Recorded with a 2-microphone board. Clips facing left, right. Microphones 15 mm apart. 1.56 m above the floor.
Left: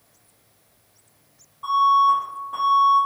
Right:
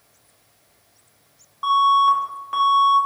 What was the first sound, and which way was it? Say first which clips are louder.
An alarm: right 1 dB; 60° right (ahead or behind).